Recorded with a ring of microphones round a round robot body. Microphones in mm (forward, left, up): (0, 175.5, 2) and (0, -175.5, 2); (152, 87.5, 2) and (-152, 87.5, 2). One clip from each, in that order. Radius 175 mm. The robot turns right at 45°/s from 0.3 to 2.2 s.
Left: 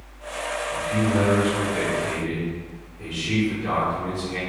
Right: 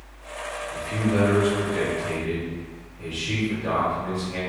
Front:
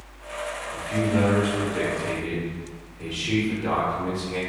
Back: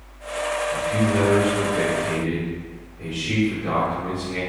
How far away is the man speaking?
About 1.0 m.